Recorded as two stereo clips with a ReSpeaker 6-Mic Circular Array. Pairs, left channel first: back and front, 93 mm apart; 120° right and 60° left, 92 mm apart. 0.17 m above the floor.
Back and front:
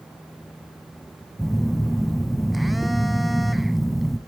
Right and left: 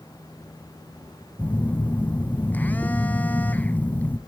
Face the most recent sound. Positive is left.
turn(degrees=-85)